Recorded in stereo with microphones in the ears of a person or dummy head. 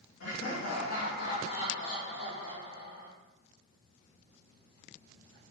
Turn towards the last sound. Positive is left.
turn(degrees=65)  # may be behind; listen again after turning